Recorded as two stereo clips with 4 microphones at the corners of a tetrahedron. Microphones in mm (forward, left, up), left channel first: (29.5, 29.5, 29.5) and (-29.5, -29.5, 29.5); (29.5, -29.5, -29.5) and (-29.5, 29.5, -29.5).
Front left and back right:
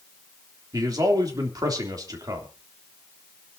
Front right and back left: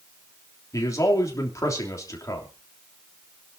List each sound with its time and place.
0.7 s a man speaking: 95° right, 3 m